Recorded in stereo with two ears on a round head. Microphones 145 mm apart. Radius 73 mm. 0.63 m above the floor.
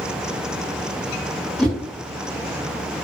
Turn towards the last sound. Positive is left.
turn(degrees=5)  # may be behind; listen again after turning